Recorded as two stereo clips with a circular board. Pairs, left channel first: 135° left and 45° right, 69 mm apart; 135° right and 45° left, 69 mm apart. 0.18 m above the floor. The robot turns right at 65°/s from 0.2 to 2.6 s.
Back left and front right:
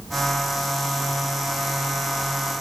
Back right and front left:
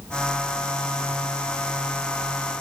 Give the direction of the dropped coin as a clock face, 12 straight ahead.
No dropped coin in this recording.